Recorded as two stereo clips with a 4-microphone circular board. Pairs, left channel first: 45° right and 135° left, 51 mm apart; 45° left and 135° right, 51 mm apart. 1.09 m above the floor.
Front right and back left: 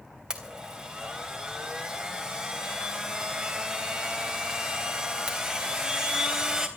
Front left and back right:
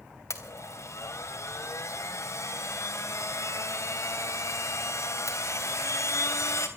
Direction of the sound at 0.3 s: 60° left.